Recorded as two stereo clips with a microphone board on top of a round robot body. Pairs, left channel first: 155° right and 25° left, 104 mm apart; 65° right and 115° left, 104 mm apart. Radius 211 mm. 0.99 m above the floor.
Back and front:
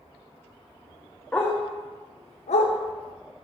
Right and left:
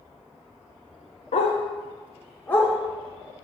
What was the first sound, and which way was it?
A dog barking, 75° right.